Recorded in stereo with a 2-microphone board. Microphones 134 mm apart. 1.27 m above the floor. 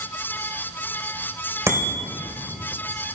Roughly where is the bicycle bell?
Right.